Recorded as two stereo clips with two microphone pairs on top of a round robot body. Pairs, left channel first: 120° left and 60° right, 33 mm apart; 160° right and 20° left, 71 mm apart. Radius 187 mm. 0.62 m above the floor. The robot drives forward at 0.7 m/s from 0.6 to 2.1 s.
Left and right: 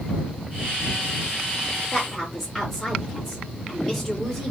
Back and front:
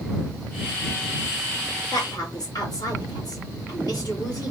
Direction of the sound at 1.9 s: 150° right.